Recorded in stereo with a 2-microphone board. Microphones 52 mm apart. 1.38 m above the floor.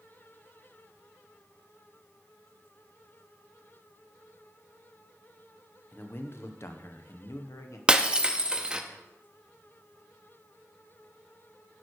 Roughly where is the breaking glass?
Centre.